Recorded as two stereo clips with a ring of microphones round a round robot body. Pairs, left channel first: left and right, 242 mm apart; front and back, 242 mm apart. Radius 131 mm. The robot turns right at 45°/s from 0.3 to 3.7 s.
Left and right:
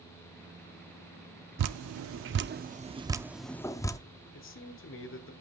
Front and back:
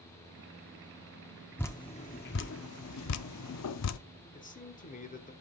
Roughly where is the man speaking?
Ahead left.